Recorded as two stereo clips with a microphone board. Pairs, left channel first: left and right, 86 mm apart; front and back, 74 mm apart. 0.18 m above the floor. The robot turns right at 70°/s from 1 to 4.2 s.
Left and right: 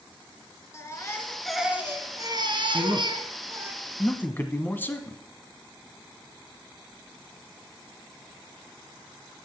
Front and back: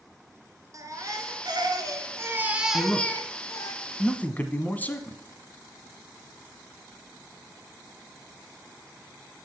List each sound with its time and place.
0.7 s a baby crying: 145° left, 1.3 m; by 3.7 s 25° right, 1.3 m
2.7 s a man speaking: 60° right, 1.3 m; by 5.2 s 40° left, 1.3 m